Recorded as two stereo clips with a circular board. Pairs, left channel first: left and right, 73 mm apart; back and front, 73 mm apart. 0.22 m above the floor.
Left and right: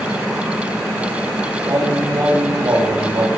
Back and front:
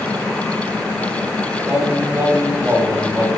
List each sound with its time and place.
1.6 s singing: 60° right, 5 m